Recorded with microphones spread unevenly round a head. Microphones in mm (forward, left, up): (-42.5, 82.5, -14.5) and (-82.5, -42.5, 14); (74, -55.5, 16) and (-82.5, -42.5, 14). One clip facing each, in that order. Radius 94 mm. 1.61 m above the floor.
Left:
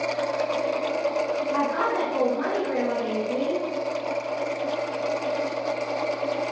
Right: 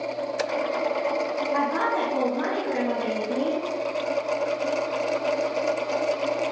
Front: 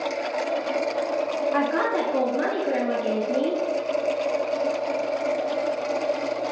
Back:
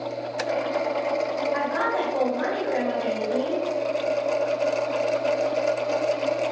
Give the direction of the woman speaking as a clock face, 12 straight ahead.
1 o'clock.